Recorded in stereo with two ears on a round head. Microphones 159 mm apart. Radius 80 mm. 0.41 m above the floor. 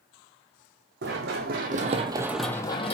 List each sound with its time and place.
1.0 s running footsteps: 70° right (ahead or behind), 1.4 m; by 3.0 s 35° left (ahead or behind), 0.9 m